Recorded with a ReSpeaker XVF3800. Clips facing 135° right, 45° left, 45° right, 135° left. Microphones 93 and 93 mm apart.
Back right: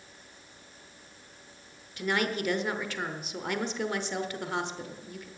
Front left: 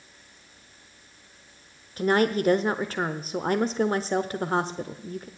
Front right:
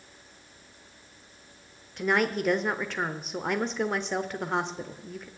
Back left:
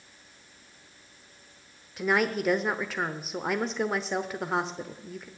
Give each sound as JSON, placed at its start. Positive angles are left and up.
{"t": 2.0, "sound": "a woman speaking", "azimuth_deg": 50, "distance_m": 0.9}